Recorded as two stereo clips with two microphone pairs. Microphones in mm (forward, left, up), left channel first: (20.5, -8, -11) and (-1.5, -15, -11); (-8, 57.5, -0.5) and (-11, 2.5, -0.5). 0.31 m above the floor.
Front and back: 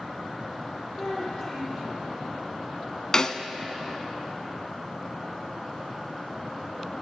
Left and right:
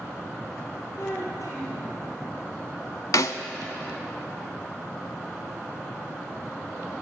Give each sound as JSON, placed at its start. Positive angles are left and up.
{"t": 1.0, "sound": "a child speaking", "azimuth_deg": 80, "distance_m": 2.5}
{"t": 3.1, "sound": "a snare drum", "azimuth_deg": 80, "distance_m": 0.5}